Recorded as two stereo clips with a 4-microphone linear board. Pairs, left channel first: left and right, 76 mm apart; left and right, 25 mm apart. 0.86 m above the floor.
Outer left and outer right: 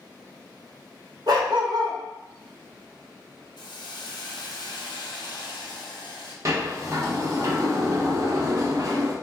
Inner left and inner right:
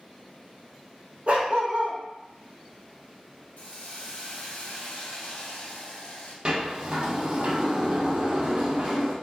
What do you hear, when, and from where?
1.3 s a dog barking: 60° right (ahead or behind), 0.8 m
3.6 s a hiss: 75° left (ahead or behind), 0.7 m
6.5 s a sliding door: 45° right (ahead or behind), 0.6 m